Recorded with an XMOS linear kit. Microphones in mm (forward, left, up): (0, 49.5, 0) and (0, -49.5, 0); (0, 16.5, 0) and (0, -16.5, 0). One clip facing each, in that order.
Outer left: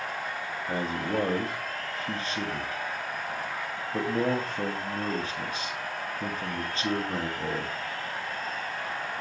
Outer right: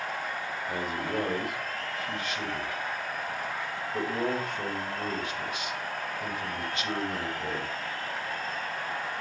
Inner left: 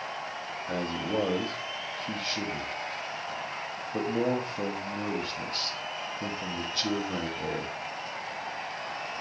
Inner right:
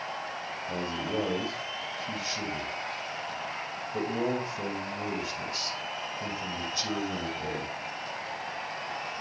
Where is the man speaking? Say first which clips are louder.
Outer left 3 dB, inner left 2 dB; 35° left (ahead or behind), 1.6 m.